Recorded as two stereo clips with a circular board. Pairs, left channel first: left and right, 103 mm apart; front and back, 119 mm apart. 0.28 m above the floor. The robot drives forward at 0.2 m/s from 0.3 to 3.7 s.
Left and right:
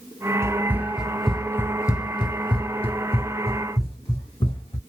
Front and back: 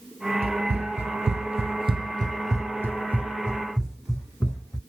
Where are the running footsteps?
155° right, 0.7 m; by 4.8 s 80° left, 1.5 m.